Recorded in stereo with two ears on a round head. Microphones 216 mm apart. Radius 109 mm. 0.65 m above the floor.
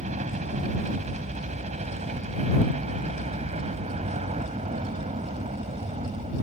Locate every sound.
0.0 s a helicopter: 30° right (ahead or behind); by 6.4 s 25° right (ahead or behind)